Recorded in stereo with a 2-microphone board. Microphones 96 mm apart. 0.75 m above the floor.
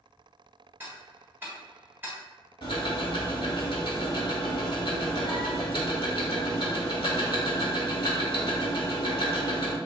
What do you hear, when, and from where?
0.8 s ticking: 20° right (ahead or behind), 1.6 m
2.6 s ticking: 60° left (ahead or behind), 1.3 m